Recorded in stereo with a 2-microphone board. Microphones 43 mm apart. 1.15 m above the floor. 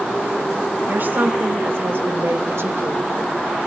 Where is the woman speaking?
50° right (ahead or behind), 2.5 m; by 3.0 s 75° right (ahead or behind), 1.6 m.